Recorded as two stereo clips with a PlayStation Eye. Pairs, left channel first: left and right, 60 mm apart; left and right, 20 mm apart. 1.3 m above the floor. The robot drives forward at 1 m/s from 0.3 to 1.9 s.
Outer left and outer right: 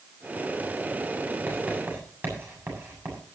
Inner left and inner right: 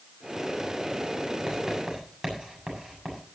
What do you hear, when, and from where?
1.5 s writing: 35° right (ahead or behind), 7.5 m